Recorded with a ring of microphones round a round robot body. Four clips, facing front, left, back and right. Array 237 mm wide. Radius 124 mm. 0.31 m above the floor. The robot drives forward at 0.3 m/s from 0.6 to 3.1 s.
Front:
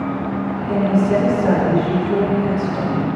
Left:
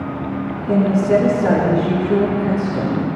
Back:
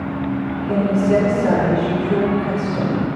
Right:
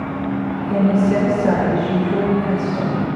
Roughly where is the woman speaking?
Left.